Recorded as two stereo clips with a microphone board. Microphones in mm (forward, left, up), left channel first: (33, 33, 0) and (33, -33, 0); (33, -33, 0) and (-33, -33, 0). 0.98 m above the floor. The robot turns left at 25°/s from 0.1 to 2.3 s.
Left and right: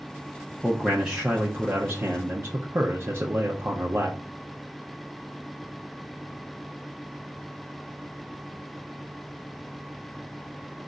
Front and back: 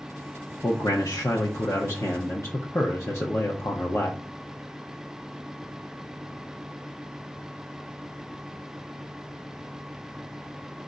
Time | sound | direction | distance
0.6 | a man speaking | 5° left | 0.8 m